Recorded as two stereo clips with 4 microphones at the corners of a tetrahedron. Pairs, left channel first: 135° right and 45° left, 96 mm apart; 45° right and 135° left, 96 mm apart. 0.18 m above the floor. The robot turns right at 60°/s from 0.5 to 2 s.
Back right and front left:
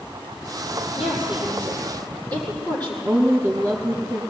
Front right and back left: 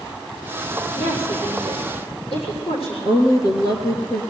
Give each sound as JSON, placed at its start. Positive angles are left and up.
{"t": 1.0, "sound": "a woman speaking", "azimuth_deg": -125, "distance_m": 6.5}
{"t": 3.0, "sound": "a woman speaking", "azimuth_deg": -15, "distance_m": 2.5}